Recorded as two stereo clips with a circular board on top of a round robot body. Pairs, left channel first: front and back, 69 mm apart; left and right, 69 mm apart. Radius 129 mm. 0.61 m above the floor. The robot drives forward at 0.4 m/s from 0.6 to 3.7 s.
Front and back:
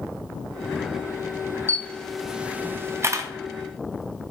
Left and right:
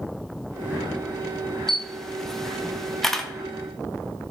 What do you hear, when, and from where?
1.7 s a camera shutter: 10° left, 0.6 m; by 3.3 s 175° left, 0.7 m